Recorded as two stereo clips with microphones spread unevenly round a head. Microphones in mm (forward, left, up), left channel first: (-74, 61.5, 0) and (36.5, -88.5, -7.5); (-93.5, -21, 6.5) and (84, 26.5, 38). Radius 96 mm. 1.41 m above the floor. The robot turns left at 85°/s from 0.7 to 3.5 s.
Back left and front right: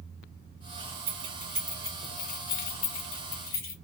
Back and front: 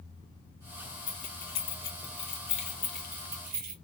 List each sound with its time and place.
1.1 s keys jangling: 95° right, 1.8 m; by 3.7 s 60° left, 1.8 m